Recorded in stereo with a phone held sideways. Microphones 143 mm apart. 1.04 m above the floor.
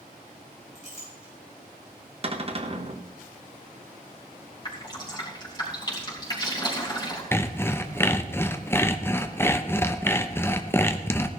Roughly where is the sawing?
Centre.